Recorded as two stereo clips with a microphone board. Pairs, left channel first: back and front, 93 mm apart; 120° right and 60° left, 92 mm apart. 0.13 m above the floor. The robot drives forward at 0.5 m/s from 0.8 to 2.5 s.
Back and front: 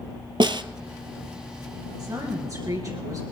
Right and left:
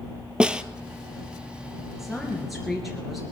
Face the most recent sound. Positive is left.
turn(degrees=-30)